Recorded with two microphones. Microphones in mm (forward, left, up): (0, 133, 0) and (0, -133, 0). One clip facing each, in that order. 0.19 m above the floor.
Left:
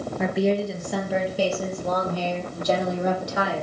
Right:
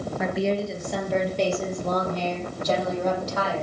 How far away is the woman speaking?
About 3.5 m.